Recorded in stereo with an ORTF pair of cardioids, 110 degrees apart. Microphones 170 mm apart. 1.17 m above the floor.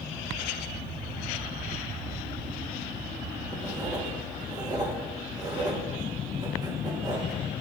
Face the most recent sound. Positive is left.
turn(degrees=-25)